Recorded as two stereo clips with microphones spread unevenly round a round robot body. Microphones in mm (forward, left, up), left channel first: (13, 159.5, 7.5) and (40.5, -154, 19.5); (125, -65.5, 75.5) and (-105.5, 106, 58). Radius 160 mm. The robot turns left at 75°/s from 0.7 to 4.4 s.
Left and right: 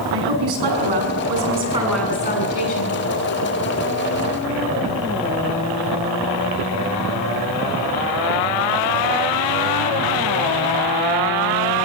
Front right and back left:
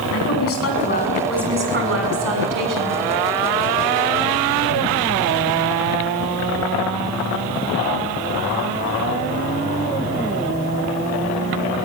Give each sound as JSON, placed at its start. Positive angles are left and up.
{"t": 0.1, "sound": "a woman speaking", "azimuth_deg": -80, "distance_m": 6.5}